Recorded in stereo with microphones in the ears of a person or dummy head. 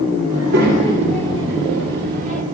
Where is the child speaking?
80° right, 3 m; by 2.4 s 45° right (ahead or behind), 1.8 m.